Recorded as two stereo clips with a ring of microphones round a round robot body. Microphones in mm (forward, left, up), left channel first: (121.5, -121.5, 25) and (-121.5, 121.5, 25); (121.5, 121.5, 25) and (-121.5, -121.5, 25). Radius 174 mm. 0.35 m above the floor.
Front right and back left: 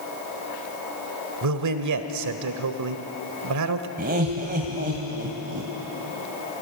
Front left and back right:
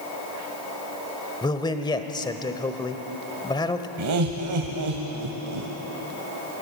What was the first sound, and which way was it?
A man speaking, 120° left.